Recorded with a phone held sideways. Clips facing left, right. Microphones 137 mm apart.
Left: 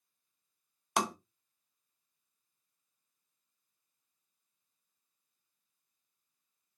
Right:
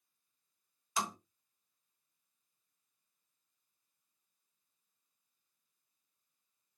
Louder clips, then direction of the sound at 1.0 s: Left 5 dB; 70° left (ahead or behind).